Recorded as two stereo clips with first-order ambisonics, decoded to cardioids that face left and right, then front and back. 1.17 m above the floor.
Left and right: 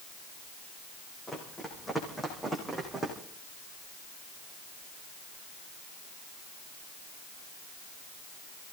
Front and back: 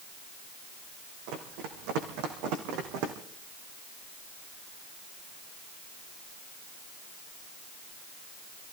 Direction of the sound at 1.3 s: 170° left.